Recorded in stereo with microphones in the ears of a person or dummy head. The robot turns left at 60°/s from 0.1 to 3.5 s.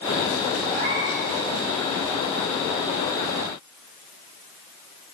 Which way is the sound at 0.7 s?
45° right.